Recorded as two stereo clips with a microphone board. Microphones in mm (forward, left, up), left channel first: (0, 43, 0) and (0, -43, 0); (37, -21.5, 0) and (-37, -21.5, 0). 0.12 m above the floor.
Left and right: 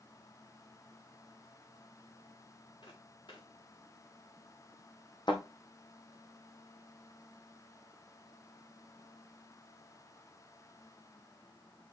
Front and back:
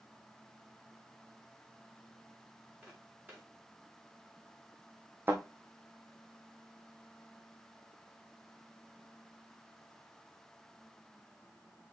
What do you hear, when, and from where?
2.8 s footsteps: 110° left, 5 m
5.3 s a thud: 115° left, 3 m